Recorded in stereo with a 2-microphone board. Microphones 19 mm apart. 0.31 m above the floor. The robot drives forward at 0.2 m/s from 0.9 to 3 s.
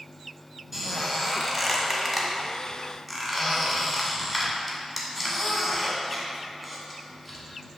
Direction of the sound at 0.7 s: 10° right (ahead or behind).